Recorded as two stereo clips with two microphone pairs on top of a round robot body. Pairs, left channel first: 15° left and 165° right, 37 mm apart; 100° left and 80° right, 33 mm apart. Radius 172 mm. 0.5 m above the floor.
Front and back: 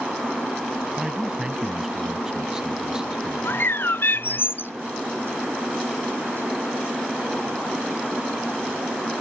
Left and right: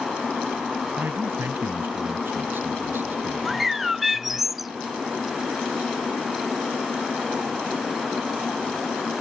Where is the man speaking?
90° right.